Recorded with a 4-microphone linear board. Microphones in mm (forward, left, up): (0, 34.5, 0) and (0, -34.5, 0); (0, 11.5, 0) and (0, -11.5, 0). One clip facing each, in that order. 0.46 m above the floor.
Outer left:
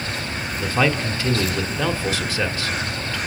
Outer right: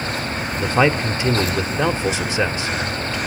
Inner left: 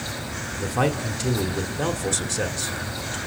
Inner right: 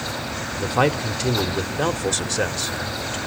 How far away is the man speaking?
About 1.3 m.